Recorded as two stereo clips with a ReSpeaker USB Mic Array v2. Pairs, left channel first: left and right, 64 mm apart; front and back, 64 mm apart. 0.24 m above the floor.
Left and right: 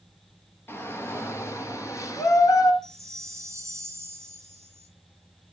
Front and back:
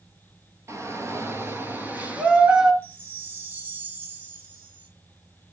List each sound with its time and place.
0.7 s a shout: 140° left, 5.5 m; by 2.7 s 105° left, 4 m
2.8 s a chime: 125° right, 2.5 m